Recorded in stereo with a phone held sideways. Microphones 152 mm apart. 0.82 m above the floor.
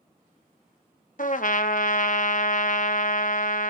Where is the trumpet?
60° left (ahead or behind), 0.7 m.